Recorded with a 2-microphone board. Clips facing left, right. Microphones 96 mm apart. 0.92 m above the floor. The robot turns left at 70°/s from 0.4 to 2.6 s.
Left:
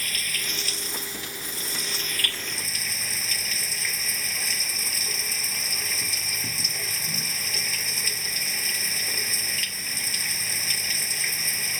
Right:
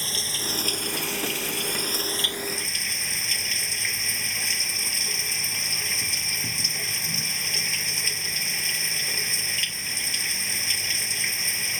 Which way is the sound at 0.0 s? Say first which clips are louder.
Right 1 dB; 25° right.